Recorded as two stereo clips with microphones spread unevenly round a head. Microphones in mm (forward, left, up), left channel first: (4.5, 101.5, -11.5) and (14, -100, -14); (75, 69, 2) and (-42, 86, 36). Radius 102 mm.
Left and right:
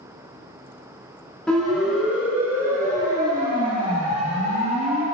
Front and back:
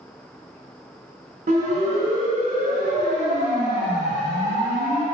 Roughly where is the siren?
Behind.